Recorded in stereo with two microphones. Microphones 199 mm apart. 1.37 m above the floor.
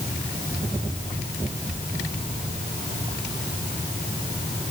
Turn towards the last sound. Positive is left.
No sound to turn to.